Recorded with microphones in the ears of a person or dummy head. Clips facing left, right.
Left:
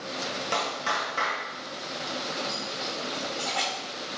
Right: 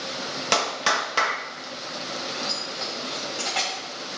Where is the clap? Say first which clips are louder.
Right 6 dB; 90° right, 1.1 m.